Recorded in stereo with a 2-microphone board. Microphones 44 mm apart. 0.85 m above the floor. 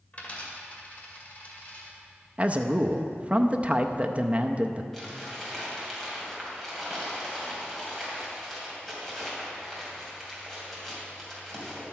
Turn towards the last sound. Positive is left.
turn(degrees=5)  # may be behind; listen again after turning